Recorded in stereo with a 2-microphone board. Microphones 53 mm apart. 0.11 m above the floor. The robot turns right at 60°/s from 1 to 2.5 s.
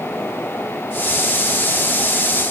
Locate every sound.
Only background noise.